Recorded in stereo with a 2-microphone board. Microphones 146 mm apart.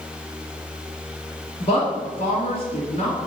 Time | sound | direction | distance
1.6 | a woman speaking | 45° left (ahead or behind) | 1.9 m